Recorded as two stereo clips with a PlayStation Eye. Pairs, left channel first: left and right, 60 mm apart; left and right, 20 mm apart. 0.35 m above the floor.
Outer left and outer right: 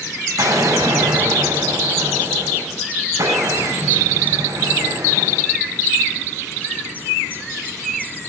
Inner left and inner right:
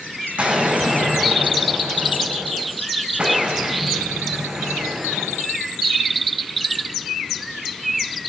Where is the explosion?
85° right, 7.5 m.